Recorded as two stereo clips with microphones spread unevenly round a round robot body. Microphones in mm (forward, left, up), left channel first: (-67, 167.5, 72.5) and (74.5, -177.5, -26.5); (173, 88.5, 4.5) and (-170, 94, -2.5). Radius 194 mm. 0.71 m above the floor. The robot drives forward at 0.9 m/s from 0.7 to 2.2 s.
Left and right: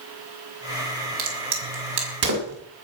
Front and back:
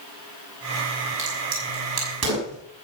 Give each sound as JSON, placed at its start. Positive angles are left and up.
{"t": 1.2, "sound": "a crack", "azimuth_deg": -120, "distance_m": 5.5}